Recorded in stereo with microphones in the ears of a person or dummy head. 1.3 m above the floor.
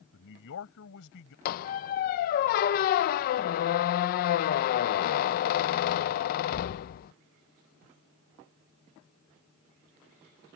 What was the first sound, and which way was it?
A man speaking, 70° left (ahead or behind).